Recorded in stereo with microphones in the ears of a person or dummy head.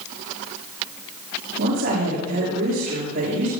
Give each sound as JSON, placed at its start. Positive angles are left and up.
{"t": 1.6, "sound": "a woman speaking", "side_deg": -65, "distance_m": 5.5}